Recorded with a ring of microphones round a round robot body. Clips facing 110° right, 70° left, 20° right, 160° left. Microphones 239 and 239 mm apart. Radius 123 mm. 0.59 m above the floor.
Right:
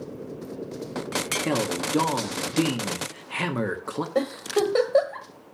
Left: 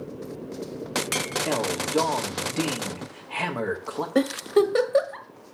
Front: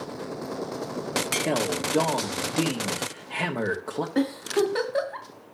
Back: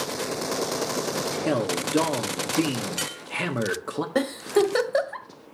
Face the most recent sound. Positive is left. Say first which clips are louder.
# left 5 dB, back 2 dB
turn(degrees=135)